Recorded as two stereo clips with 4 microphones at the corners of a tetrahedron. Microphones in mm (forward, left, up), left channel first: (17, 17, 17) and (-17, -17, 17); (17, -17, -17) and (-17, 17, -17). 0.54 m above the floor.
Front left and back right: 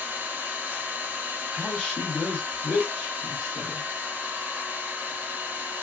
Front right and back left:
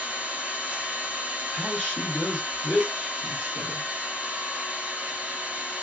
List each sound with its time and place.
0.0 s an engine running: 170° right, 0.8 m
1.5 s a woman speaking: 5° left, 1.3 m